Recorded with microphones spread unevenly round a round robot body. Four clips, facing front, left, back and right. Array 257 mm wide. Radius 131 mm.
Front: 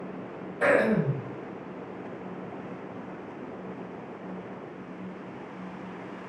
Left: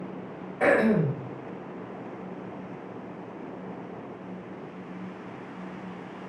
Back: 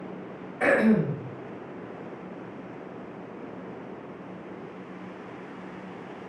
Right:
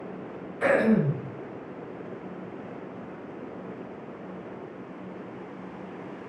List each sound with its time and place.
0.6 s throat clearing: 100° left, 1.4 m